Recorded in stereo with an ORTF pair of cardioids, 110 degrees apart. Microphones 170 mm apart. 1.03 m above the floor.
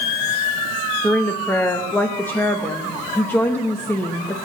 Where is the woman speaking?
10° left, 0.8 m.